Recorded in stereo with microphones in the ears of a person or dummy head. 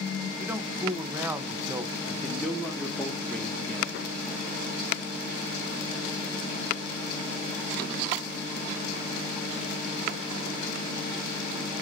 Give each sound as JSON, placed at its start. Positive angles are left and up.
{"t": 0.4, "sound": "a man speaking", "side_deg": -10, "distance_m": 1.1}
{"t": 2.1, "sound": "a man speaking", "side_deg": 0, "distance_m": 1.5}